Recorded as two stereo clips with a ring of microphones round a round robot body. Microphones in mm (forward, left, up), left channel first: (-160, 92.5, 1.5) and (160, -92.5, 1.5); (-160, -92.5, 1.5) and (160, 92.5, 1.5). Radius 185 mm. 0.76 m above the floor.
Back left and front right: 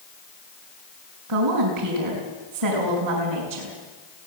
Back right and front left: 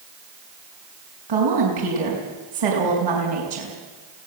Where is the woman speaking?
5° left, 5 m.